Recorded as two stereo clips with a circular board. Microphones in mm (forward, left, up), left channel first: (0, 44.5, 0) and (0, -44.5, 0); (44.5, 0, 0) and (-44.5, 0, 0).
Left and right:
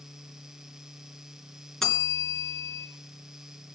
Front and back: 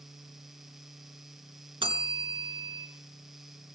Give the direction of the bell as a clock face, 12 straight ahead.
6 o'clock.